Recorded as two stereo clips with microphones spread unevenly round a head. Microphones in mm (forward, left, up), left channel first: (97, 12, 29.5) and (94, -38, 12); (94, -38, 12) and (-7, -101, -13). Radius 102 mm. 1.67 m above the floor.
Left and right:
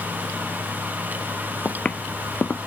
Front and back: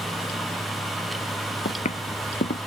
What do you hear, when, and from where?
1.6 s footsteps: 30° left